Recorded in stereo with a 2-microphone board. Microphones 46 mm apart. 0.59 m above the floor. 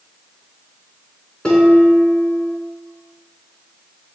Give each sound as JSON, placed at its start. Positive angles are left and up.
{"t": 1.4, "sound": "dishes clattering", "side_deg": 15, "distance_m": 4.0}